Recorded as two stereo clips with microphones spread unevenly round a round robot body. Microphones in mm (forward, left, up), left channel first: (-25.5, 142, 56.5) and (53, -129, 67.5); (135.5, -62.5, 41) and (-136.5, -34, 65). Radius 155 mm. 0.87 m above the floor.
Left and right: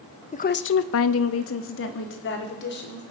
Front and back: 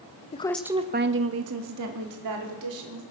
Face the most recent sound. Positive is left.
turn(degrees=160)